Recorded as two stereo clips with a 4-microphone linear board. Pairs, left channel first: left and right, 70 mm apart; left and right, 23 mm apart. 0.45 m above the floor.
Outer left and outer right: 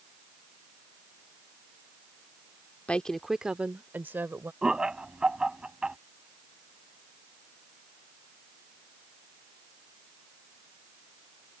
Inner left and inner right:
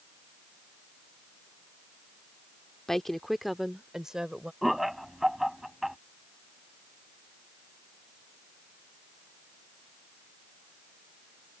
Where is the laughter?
10° right (ahead or behind).